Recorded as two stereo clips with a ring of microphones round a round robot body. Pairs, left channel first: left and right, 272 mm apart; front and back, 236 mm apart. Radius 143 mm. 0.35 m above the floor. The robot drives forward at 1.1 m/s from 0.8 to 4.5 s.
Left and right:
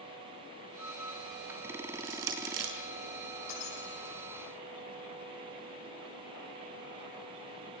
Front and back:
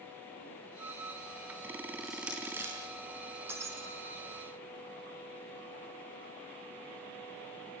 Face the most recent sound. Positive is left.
turn(degrees=105)